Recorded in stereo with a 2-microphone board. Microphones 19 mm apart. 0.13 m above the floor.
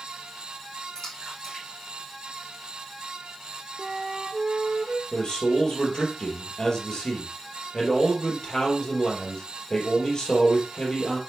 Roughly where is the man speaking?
Left.